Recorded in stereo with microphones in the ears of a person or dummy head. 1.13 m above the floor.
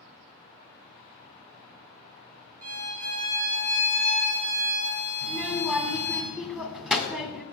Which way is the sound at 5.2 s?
Centre (ahead or behind).